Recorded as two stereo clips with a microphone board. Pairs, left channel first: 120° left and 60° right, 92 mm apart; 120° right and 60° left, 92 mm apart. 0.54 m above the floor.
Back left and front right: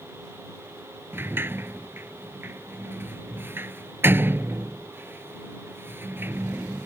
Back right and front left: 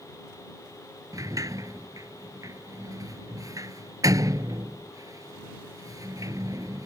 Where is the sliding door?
5° left.